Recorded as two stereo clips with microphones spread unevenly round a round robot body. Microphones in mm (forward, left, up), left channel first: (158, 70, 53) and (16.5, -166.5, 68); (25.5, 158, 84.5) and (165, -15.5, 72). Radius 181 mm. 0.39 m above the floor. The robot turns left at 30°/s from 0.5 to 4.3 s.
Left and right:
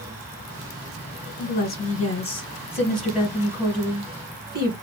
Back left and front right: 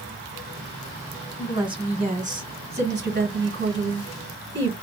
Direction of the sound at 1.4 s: 20° left.